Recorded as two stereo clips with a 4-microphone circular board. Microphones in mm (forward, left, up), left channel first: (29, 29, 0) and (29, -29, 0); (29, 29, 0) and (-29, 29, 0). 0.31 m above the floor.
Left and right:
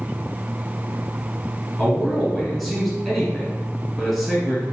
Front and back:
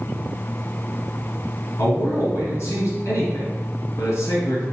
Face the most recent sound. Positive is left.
turn(degrees=5)